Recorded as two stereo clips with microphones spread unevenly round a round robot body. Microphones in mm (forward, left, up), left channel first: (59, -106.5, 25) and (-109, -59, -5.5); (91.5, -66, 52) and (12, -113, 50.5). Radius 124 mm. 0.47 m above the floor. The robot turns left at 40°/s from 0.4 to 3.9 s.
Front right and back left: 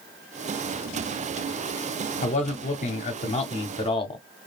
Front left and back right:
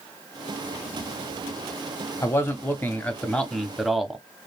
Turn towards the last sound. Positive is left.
turn(degrees=-65)